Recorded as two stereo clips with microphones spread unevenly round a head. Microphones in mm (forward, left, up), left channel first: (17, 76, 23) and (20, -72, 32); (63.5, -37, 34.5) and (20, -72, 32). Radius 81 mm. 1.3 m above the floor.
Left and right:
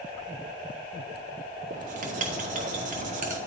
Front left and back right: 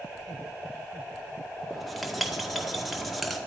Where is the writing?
50° right, 2.0 m.